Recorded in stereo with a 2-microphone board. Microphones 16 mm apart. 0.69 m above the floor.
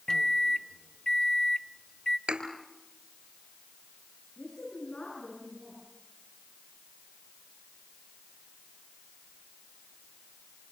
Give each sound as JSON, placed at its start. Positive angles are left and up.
{"t": 0.1, "sound": "a microwave", "side_deg": 40, "distance_m": 0.6}
{"t": 2.3, "sound": "a thud", "side_deg": -70, "distance_m": 4.0}
{"t": 4.4, "sound": "a woman speaking", "side_deg": 75, "distance_m": 9.0}